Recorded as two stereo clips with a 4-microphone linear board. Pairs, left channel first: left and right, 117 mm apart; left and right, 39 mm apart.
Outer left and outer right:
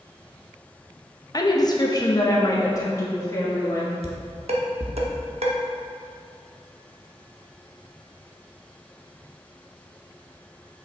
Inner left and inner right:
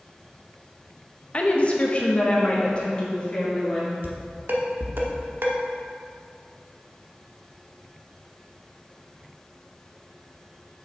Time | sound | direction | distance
1.3 | a woman speaking | 35° left (ahead or behind) | 0.8 m
4.0 | dishes clattering | 70° right (ahead or behind) | 1.0 m